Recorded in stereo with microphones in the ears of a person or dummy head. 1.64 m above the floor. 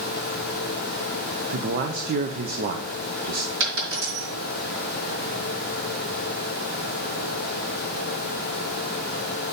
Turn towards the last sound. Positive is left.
turn(degrees=-60)  # may be behind; listen again after turning